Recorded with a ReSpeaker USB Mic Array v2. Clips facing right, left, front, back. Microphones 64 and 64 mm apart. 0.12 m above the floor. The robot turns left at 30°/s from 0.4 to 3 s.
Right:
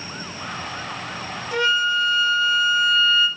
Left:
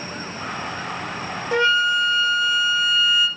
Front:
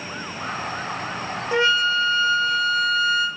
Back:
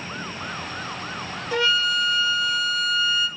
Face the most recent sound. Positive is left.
turn(degrees=10)